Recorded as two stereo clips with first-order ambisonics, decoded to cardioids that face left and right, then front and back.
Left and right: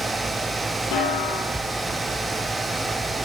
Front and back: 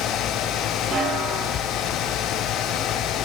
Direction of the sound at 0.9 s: 115° left.